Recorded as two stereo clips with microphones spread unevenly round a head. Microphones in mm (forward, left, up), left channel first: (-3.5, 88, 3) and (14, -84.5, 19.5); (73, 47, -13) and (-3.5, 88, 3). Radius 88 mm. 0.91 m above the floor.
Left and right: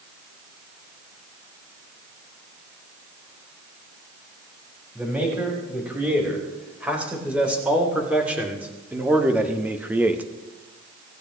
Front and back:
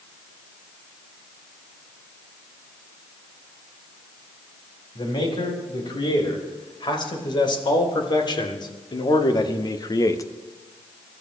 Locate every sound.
5.0 s a man speaking: straight ahead, 6.5 m